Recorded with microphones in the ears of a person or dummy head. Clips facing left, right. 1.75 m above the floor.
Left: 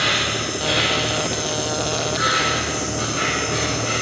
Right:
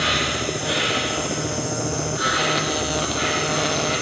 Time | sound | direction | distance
0.0 | an insect | 30° left (ahead or behind) | 4.5 m